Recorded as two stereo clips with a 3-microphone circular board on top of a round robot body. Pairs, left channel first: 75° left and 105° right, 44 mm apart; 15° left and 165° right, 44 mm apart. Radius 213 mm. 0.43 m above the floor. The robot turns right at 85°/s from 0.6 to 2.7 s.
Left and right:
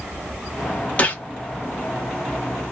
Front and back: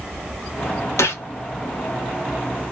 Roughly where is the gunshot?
Ahead.